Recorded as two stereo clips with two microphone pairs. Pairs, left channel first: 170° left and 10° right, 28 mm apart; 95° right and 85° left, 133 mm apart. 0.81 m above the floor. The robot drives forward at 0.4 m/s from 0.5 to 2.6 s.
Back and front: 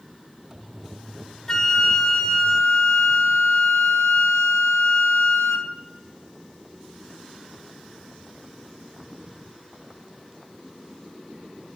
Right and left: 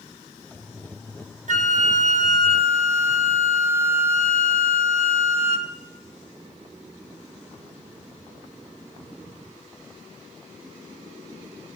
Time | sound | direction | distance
1.5 | a flute | 100° left | 1.1 m